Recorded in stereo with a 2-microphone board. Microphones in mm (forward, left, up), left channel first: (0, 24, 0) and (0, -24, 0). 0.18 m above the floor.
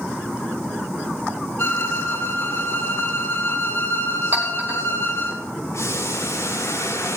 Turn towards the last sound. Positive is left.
turn(degrees=85)